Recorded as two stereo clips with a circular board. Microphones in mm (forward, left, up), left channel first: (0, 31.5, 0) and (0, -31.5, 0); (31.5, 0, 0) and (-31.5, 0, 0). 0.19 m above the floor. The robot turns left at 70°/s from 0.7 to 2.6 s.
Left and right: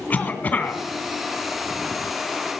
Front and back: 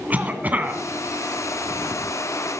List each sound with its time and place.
0.1 s a cough: 135° left, 2.0 m; by 0.8 s 125° left, 2.0 m